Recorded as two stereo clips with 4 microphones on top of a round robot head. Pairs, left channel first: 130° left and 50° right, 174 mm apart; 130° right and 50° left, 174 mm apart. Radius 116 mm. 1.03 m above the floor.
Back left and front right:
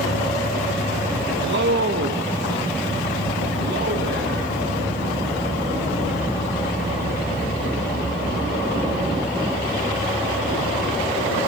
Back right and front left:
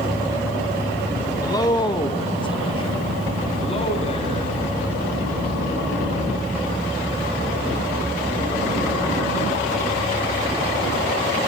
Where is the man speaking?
60° right, 1.1 m; by 4.6 s 75° right, 3 m.